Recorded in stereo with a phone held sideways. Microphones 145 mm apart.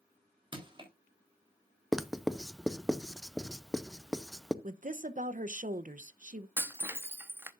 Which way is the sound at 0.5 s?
35° right (ahead or behind).